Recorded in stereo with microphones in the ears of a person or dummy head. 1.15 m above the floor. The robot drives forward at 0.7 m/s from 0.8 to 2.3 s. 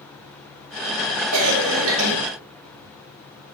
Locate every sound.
1.3 s a cough: 80° right, 1.9 m; by 2.1 s 65° right (ahead or behind), 2 m